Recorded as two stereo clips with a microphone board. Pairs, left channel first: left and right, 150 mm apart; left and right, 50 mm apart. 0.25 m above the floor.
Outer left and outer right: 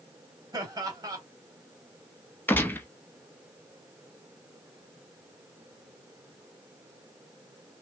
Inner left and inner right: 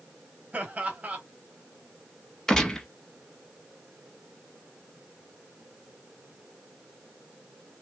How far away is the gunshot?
About 0.6 m.